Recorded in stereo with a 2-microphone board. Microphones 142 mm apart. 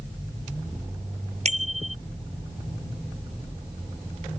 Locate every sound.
1.4 s a bicycle bell: 55° right (ahead or behind)